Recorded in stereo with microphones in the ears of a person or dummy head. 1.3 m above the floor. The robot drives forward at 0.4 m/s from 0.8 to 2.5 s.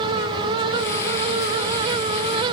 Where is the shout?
No shout in this recording.